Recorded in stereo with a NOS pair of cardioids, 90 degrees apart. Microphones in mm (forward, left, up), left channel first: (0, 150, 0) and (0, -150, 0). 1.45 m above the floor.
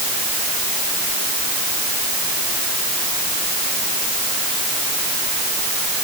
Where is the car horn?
I don't hear a car horn.